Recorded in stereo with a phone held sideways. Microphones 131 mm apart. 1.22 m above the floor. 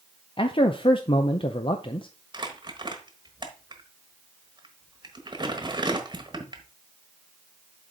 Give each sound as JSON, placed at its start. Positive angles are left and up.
{"t": 0.4, "sound": "a man speaking", "side_deg": 40, "distance_m": 0.5}
{"t": 2.3, "sound": "crumpling", "side_deg": -35, "distance_m": 1.2}